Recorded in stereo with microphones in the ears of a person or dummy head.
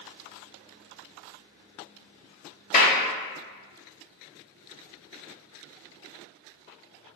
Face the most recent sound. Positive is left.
turn(degrees=40)  # may be behind; listen again after turning